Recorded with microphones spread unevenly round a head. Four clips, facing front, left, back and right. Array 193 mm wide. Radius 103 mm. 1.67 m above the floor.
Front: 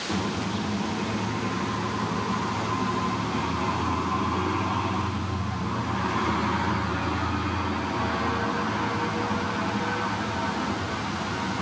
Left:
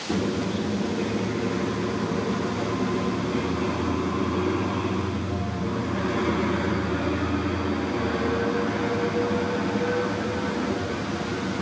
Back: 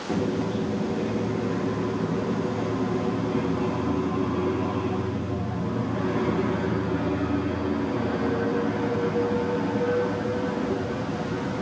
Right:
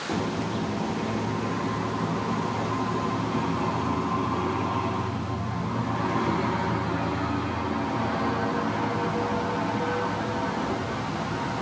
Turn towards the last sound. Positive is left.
No sound to turn to.